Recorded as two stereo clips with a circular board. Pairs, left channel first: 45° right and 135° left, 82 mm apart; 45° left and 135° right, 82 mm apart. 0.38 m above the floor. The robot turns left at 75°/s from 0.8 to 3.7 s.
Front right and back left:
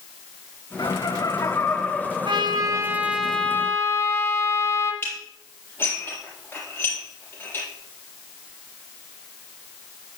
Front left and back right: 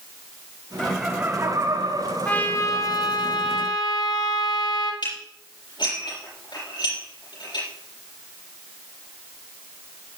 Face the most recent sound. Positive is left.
turn(degrees=20)